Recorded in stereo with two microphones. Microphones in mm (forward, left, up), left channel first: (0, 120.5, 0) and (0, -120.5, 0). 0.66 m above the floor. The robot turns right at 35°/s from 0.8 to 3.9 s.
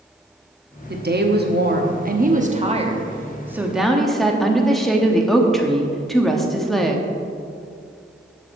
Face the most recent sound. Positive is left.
turn(degrees=0)